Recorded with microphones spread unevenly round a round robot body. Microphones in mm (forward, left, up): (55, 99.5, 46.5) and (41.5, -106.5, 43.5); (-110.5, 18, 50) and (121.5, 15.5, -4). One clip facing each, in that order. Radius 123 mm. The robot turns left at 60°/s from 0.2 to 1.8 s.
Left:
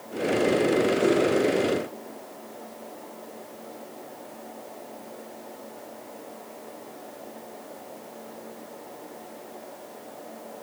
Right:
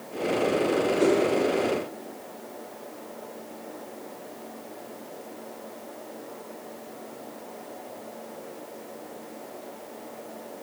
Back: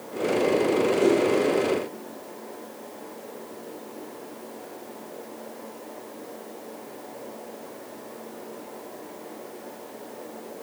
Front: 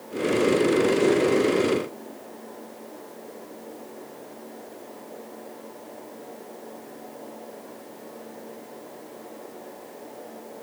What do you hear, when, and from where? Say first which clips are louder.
1.0 s a whoosh: right 4 dB, even; 55° right, 2.5 m; by 1.2 s 65° right, 2.5 m